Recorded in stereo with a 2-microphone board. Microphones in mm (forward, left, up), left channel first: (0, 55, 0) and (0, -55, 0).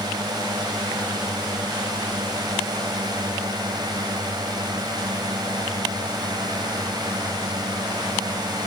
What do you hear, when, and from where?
0.0 s a drone: 40° right (ahead or behind)